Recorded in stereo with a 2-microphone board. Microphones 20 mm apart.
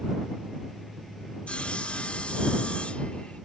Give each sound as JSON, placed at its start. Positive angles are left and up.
{"t": 1.5, "sound": "sawing", "side_deg": 80}